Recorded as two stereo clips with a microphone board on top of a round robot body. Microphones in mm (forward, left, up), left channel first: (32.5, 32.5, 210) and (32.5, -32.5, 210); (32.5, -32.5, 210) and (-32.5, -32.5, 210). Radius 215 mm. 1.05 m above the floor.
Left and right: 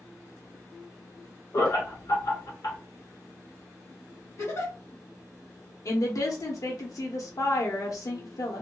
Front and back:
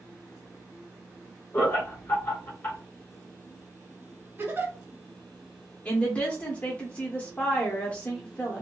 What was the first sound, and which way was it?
Laughter, 60° left.